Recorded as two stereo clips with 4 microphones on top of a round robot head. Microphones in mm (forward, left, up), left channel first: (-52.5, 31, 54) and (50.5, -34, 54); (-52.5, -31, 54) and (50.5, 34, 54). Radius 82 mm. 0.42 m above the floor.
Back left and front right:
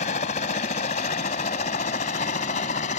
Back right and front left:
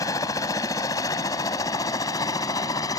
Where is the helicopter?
155° left.